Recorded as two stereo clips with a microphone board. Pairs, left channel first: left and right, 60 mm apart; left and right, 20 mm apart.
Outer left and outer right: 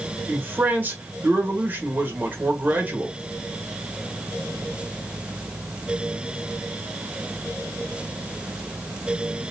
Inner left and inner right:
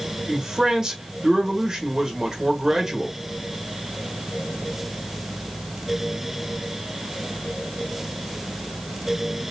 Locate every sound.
0.3 s a man speaking: 30° right (ahead or behind), 1.4 m